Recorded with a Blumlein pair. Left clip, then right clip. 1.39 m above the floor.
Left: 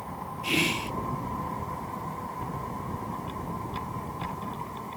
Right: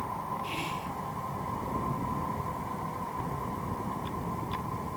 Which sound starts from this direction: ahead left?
Whispering, at 0.4 s.